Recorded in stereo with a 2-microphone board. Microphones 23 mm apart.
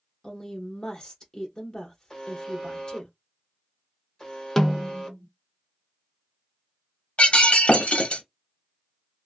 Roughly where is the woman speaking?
Left.